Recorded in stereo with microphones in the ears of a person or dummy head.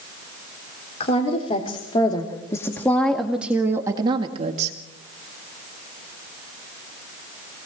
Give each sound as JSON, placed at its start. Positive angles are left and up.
{"t": 1.0, "sound": "a woman speaking", "side_deg": 40, "distance_m": 3.5}